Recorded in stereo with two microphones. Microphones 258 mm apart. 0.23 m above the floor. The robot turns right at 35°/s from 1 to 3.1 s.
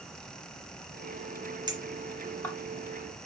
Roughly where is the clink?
Centre.